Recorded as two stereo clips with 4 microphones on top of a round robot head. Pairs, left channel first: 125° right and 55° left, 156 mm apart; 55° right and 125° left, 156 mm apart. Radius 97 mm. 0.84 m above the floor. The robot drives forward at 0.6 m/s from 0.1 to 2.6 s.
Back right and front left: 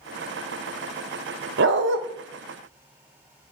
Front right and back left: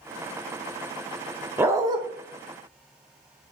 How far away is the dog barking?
About 0.8 m.